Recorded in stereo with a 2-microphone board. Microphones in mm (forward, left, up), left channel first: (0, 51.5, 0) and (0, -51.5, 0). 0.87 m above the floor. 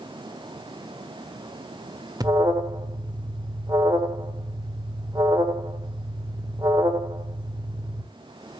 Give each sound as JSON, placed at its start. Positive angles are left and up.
{"t": 2.2, "sound": "an alarm", "side_deg": -40, "distance_m": 1.7}